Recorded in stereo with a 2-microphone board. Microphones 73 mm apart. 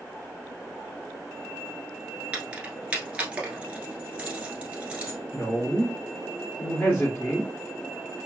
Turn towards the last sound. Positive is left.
turn(degrees=25)  # may be behind; listen again after turning